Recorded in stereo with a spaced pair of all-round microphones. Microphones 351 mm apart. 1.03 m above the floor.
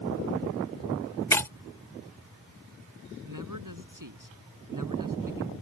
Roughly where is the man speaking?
Right.